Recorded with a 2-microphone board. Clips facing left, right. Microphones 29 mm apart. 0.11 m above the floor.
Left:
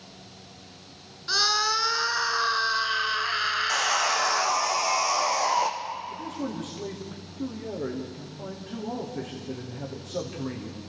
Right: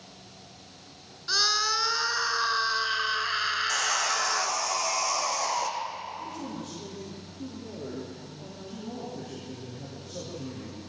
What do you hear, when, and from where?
1.3 s a scream: 5° left (ahead or behind), 1.2 m
3.7 s sawing: 15° left (ahead or behind), 2.5 m
6.1 s a man speaking: 70° left (ahead or behind), 5 m